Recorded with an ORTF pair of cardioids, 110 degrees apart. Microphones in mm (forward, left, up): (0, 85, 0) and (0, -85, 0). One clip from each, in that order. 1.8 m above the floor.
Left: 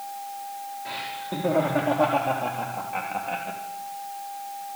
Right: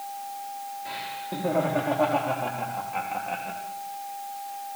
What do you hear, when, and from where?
0.8 s laughter: 10° left, 4.5 m